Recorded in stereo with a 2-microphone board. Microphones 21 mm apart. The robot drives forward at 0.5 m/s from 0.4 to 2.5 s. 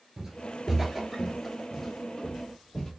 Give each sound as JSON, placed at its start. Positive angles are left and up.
{"t": 0.2, "sound": "footsteps", "side_deg": -25, "distance_m": 1.3}